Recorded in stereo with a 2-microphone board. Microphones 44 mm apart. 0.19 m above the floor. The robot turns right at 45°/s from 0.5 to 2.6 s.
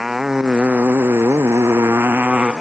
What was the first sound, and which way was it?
A motorcycle, 5° right (ahead or behind).